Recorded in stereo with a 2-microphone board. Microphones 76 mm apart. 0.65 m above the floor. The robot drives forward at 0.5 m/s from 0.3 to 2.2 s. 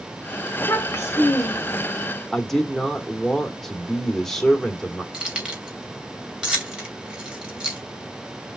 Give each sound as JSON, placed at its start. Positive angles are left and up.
{"t": 0.6, "sound": "a child speaking", "side_deg": 30, "distance_m": 2.0}
{"t": 2.3, "sound": "a man speaking", "side_deg": 5, "distance_m": 1.6}
{"t": 5.1, "sound": "keys jangling", "side_deg": -10, "distance_m": 2.5}